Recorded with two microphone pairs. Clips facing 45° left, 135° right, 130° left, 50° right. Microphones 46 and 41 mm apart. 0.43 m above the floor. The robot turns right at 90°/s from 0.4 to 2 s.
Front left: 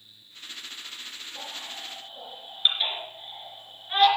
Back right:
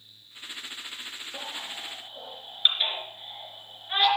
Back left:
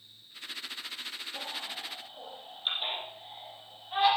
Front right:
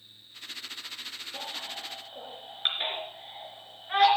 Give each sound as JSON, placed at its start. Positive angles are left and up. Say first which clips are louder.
{"t": 1.3, "sound": "a baby crying", "louder": "back right 2 dB, front right 2 dB", "azimuth_deg": -120, "distance_m": 3.5}